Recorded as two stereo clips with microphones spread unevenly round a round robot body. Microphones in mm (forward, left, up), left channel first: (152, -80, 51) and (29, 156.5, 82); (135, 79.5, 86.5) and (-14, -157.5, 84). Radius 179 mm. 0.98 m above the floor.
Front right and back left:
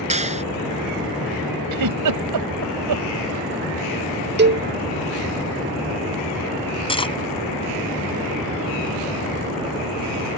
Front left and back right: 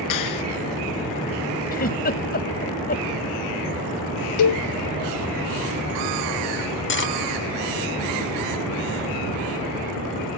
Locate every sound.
0.1 s a clap: 55° left
1.7 s a giggle: 120° left
4.4 s a cowbell: 60° left
6.9 s cutlery clinking: 10° left